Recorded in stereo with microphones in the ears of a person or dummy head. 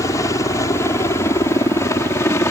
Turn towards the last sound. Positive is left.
turn(degrees=15)  # may be behind; listen again after turning